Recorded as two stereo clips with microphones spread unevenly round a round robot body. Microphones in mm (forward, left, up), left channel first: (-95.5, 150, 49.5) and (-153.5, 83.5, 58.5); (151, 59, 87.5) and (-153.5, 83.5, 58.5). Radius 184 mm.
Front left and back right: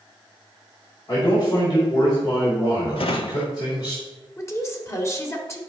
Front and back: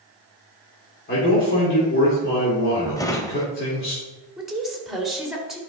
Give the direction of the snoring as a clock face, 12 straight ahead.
I don't hear snoring.